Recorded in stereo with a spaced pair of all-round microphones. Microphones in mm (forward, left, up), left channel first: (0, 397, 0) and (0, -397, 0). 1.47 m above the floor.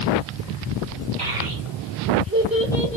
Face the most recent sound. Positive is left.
turn(degrees=10)  # may be behind; listen again after turning